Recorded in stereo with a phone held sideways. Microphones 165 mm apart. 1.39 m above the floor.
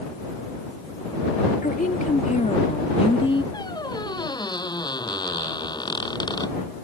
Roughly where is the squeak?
Left.